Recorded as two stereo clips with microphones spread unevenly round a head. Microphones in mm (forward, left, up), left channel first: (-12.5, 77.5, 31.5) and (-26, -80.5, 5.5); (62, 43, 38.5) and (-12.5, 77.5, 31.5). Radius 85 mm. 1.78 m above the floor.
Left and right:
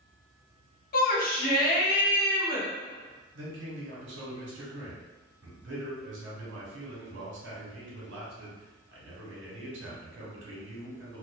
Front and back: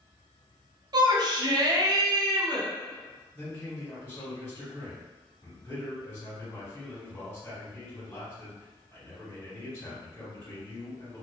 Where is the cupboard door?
No cupboard door in this recording.